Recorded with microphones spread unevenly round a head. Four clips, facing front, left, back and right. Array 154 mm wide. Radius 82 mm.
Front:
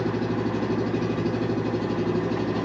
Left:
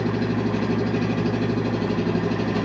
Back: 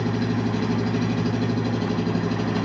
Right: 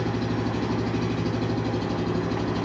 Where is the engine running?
125° left, 2 m.